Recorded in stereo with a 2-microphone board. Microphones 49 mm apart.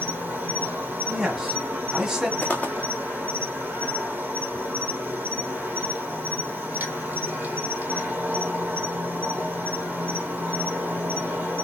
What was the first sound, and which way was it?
An insect, 40° right (ahead or behind).